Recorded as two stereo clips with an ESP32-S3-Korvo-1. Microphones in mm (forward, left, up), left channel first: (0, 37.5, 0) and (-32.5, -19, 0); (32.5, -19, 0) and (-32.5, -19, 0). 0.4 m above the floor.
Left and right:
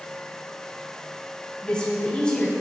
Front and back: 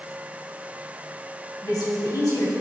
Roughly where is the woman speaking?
Ahead.